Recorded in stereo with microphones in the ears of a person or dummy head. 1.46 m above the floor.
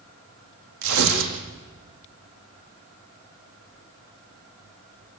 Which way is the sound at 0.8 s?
70° right (ahead or behind).